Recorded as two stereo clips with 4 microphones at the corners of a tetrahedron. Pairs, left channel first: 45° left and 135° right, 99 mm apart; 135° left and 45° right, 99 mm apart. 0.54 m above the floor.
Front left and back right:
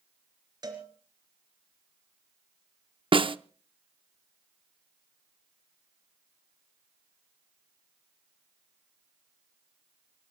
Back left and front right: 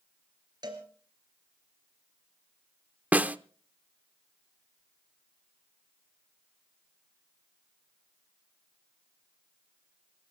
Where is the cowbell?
90° right, 2.5 m.